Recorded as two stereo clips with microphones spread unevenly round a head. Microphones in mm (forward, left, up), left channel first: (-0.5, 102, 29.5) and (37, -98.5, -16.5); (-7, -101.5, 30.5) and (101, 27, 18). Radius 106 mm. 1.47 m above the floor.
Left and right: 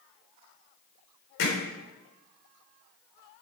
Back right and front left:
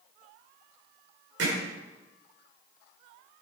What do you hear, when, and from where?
1.4 s hammering: 85° left, 4.5 m